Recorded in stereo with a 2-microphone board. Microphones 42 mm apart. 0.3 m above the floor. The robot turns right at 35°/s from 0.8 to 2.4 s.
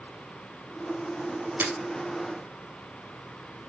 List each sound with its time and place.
1.6 s breaking glass: 65° right (ahead or behind), 2 m; by 1.7 s 60° right (ahead or behind), 2 m